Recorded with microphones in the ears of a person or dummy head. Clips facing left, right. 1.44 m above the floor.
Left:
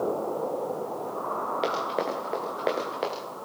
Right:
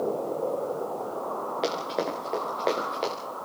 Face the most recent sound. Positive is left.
turn(degrees=5)  # may be behind; listen again after turning